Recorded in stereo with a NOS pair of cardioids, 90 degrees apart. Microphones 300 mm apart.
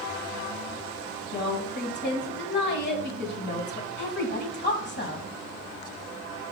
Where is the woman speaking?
35° left, 2 m.